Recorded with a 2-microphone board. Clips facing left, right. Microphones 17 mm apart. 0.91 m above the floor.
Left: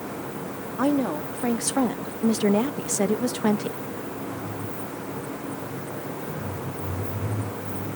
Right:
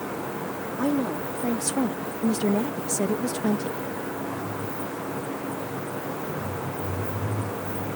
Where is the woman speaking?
30° left (ahead or behind); by 3.8 s 35° left (ahead or behind).